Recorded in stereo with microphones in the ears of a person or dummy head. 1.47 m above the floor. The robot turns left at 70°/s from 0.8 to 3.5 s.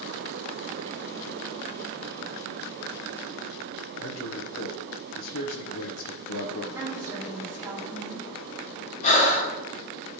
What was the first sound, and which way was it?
A man speaking, 75° left (ahead or behind).